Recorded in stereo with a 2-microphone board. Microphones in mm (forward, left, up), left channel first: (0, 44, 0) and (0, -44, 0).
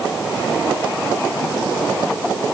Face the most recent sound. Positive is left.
No sound to turn to.